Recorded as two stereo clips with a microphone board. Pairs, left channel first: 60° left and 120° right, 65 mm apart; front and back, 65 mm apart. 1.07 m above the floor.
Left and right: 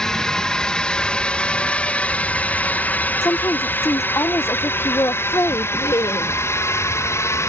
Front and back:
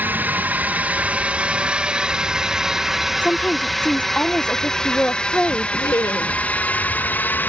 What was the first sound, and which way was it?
A drone, 135° left.